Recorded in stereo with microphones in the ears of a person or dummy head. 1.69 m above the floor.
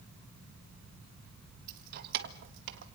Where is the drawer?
No drawer in this recording.